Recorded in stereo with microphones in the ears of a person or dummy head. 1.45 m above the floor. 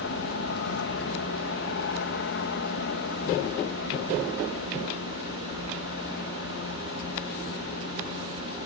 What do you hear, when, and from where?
0.0 s an aircraft: 60° left (ahead or behind)